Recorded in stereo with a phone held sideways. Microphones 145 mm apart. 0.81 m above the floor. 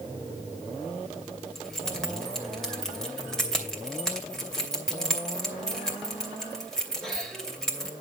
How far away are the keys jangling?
About 2.5 m.